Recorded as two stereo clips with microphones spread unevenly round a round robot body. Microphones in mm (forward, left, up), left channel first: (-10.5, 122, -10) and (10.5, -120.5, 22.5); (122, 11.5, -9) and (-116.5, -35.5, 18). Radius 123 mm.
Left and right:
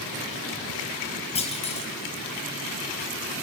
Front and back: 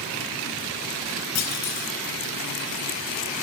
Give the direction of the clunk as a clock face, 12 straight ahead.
11 o'clock.